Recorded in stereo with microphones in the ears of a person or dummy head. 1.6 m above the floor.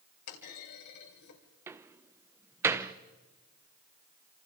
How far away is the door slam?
About 0.8 m.